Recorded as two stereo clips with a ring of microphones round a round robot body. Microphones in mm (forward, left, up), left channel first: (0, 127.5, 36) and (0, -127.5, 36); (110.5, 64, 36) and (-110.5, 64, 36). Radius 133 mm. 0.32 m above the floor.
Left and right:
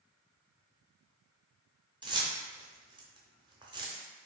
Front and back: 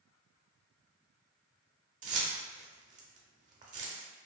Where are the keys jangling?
155° right, 0.7 m.